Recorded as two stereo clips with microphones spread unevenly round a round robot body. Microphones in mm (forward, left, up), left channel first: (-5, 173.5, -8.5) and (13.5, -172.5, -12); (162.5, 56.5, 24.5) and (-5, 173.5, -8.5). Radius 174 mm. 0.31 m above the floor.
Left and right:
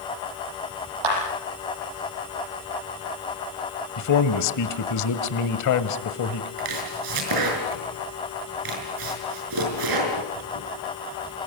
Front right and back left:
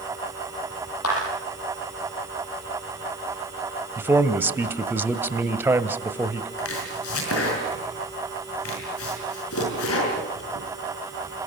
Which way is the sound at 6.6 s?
60° right.